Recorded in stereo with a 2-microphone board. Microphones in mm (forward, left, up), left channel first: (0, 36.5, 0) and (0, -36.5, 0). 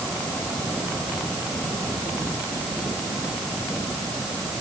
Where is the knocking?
I don't hear knocking.